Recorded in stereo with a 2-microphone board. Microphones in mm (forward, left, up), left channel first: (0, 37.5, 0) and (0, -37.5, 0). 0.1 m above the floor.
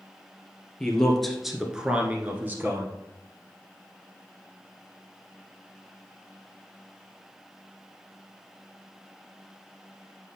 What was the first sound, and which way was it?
A man speaking, 10° left (ahead or behind).